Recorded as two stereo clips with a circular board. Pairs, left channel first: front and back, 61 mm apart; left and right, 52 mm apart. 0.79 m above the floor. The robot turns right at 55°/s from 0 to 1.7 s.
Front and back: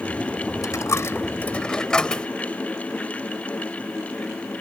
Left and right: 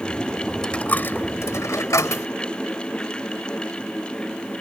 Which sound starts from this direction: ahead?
A dropped coin, at 0.6 s.